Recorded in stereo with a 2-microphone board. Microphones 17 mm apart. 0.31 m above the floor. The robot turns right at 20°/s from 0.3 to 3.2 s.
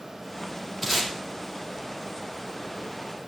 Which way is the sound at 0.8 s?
5° right (ahead or behind).